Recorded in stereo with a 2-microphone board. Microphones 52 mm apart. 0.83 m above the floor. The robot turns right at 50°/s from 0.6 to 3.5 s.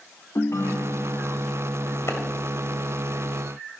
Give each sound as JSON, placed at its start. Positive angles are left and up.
{"t": 0.3, "sound": "a ringtone", "azimuth_deg": 105, "distance_m": 0.9}
{"t": 2.1, "sound": "a clap", "side_deg": 60, "distance_m": 2.5}